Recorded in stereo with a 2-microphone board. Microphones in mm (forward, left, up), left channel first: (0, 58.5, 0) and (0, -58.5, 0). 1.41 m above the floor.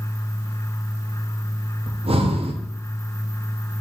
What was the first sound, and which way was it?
Breathing, 55° right (ahead or behind).